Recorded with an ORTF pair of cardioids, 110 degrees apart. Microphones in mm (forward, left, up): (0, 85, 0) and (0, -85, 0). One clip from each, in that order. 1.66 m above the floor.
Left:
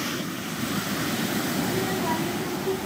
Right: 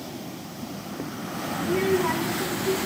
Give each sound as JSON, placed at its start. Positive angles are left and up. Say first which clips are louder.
{"t": 1.6, "sound": "a child speaking", "louder": "right 3 dB", "azimuth_deg": -60, "distance_m": 1.6}